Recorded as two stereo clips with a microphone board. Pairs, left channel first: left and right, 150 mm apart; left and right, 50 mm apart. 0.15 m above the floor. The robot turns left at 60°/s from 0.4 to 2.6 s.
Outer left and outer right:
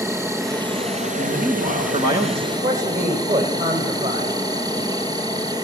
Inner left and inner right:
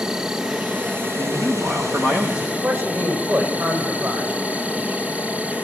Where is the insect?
20° right, 2.5 m; by 5.7 s 150° right, 2.5 m.